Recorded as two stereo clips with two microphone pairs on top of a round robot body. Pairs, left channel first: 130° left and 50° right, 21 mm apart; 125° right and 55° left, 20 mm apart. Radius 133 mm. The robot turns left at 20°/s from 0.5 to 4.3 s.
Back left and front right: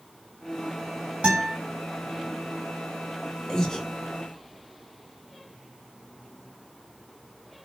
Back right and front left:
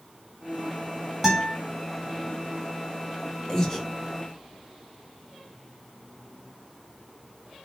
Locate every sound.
1.2 s a guitar: 45° right, 1.4 m; by 1.6 s 50° right, 1.4 m
3.5 s breathing: straight behind, 0.9 m; by 3.9 s 175° left, 0.9 m